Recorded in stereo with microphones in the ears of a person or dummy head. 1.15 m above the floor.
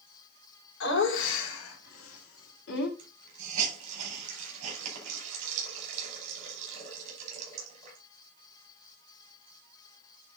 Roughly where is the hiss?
Right.